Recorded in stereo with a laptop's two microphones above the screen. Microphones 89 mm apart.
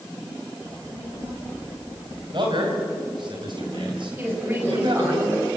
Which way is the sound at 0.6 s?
40° right (ahead or behind).